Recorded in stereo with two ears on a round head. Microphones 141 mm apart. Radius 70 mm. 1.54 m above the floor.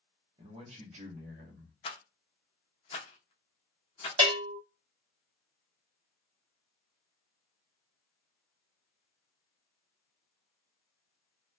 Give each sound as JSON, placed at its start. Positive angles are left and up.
{"t": 0.4, "sound": "a man speaking", "side_deg": -30, "distance_m": 1.0}
{"t": 1.8, "sound": "a rattle", "side_deg": 35, "distance_m": 0.6}
{"t": 4.2, "sound": "a bell", "side_deg": -30, "distance_m": 0.9}